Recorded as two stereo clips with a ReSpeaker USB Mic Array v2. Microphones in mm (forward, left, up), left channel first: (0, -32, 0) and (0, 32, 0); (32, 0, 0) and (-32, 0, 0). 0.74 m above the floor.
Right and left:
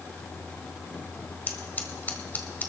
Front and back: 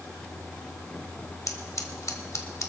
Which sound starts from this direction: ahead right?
Scissors, at 1.5 s.